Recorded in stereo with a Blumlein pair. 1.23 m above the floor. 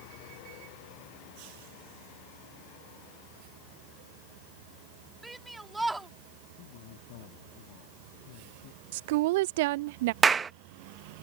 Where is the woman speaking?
50° right.